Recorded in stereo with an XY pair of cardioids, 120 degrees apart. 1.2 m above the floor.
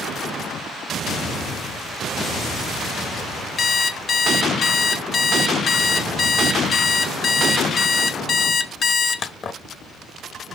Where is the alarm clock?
40° left, 0.9 m.